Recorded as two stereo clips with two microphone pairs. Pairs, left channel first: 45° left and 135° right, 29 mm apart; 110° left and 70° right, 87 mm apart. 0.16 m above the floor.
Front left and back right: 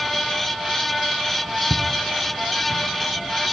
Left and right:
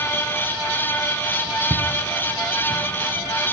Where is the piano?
No piano in this recording.